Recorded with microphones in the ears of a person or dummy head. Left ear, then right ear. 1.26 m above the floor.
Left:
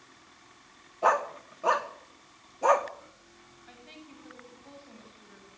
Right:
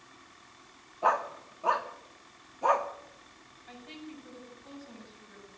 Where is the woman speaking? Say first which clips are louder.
Right 4 dB; 5° left (ahead or behind), 8.5 m.